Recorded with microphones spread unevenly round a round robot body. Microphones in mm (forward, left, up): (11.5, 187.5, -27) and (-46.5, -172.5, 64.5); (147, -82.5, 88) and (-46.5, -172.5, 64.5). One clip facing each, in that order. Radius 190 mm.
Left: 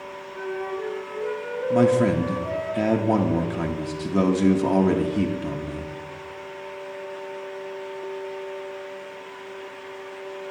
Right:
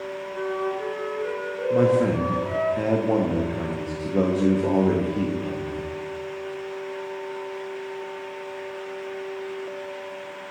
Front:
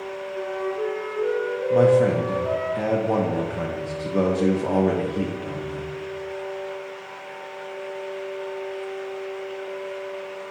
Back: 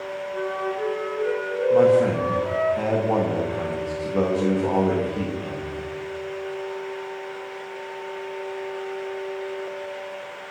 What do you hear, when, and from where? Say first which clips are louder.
0.3 s a flute: right 2 dB, front 1 dB; straight behind, 3 m
1.7 s a man speaking: left 1 dB, even; 105° left, 0.5 m